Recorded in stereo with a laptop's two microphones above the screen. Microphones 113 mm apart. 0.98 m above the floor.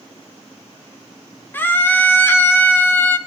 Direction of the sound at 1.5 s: 15° left (ahead or behind).